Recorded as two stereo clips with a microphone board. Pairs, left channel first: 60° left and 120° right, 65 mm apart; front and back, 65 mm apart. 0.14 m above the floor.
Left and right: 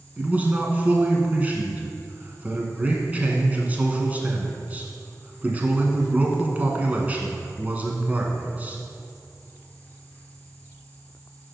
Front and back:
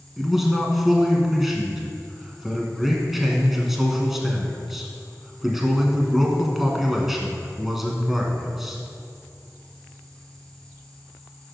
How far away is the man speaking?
About 1.1 m.